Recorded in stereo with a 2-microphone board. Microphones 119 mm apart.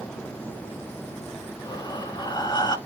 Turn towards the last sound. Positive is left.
turn(degrees=40)  # may be behind; listen again after turning